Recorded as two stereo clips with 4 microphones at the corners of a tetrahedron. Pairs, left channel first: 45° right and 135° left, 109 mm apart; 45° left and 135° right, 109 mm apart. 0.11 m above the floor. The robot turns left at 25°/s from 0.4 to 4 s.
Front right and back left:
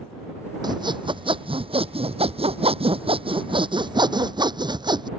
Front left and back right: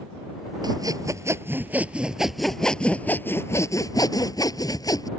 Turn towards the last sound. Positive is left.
turn(degrees=95)